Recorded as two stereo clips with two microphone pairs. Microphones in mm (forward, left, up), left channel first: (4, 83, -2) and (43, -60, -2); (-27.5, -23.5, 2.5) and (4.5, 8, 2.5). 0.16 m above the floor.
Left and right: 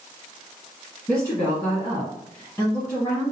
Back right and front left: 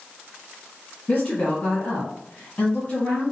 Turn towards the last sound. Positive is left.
turn(degrees=180)